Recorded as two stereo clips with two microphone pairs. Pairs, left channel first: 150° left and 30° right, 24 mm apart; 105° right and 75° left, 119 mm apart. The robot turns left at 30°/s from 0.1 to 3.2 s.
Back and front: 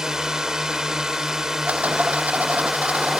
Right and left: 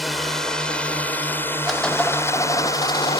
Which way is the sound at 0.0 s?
10° right.